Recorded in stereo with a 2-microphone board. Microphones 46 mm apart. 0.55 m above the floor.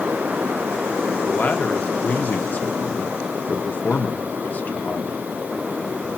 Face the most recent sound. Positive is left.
turn(degrees=35)  # may be behind; listen again after turning